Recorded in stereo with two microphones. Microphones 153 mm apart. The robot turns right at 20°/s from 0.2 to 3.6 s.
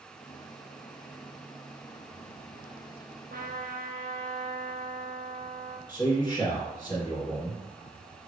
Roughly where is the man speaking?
Left.